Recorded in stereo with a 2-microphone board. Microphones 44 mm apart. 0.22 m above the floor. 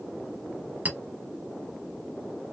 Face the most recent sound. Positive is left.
turn(degrees=-40)  # may be behind; listen again after turning